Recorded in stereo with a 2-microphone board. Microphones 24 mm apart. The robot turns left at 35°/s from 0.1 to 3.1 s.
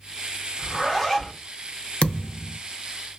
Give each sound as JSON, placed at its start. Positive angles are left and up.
{"t": 0.6, "sound": "a zipper", "side_deg": 5, "distance_m": 1.4}
{"t": 2.0, "sound": "a thud", "side_deg": 60, "distance_m": 0.5}